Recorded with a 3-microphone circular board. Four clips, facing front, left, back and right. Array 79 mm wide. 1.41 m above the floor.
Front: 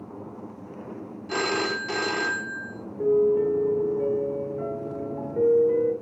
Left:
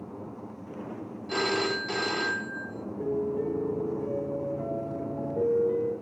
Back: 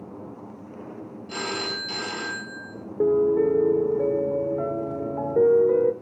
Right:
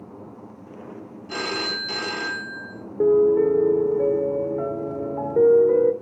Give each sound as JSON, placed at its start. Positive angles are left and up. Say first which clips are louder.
{"t": 1.3, "sound": "a phone ringing", "louder": "left 1 dB, front 5 dB", "azimuth_deg": 15, "distance_m": 1.9}
{"t": 3.0, "sound": "a piano", "louder": "right 13 dB, back 1 dB", "azimuth_deg": -130, "distance_m": 0.9}